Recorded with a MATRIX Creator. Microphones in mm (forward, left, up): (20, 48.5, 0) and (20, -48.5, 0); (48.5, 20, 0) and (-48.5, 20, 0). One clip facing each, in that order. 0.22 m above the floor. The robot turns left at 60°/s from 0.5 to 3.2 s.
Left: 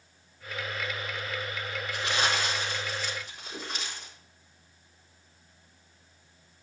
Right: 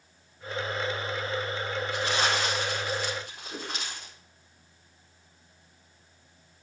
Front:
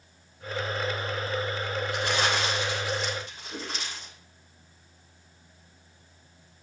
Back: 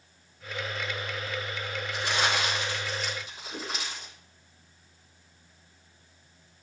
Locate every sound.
1.9 s crumpling: 20° right, 4.5 m; by 4.1 s 100° right, 4.5 m
3.5 s a whoosh: 75° right, 3 m